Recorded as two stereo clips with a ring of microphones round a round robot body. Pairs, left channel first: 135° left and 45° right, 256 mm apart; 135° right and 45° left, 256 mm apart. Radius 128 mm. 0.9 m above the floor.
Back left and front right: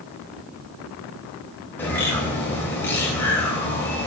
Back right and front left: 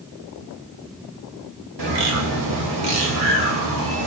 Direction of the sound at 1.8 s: 55° left.